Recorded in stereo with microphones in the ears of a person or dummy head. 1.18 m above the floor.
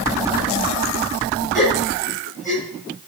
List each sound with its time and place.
1.5 s a gasp: 5° left (ahead or behind), 6.5 m